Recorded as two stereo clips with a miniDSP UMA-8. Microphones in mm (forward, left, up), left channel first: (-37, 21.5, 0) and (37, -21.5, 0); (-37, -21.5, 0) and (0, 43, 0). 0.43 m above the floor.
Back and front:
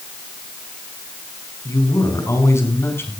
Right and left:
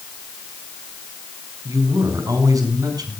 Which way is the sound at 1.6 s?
105° left.